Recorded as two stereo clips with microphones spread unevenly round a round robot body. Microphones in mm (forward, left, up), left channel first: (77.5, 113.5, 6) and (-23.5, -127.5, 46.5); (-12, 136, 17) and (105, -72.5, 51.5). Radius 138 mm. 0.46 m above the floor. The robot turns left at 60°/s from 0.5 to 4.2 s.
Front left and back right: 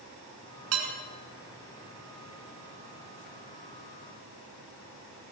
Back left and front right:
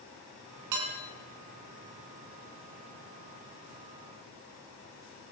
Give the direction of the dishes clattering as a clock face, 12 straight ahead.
3 o'clock.